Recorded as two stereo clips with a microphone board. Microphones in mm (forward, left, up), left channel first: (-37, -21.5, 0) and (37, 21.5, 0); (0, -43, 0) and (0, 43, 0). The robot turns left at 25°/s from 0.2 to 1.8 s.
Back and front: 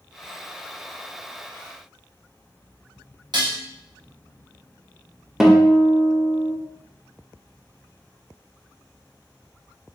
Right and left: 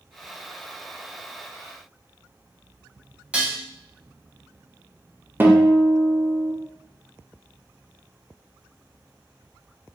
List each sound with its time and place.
3.3 s dishes clattering: 20° left, 0.7 m
5.4 s a guitar: 110° left, 0.5 m